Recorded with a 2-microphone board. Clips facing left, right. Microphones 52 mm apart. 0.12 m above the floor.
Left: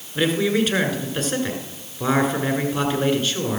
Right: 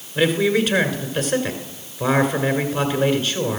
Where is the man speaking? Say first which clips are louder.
Right 2 dB; 5° right (ahead or behind), 1.6 m.